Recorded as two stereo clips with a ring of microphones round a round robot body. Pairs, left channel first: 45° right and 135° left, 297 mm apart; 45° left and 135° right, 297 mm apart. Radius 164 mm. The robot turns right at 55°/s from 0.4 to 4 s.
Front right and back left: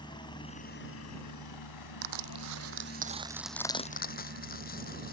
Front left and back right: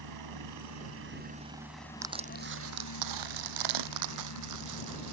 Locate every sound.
0.0 s a helicopter: 120° right; by 5.1 s 75° left
2.0 s crushing: 145° left; by 5.1 s 105° right